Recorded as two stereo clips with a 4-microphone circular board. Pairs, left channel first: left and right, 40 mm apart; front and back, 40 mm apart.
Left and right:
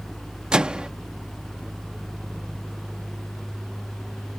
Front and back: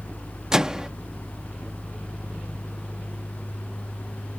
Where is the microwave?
125° right.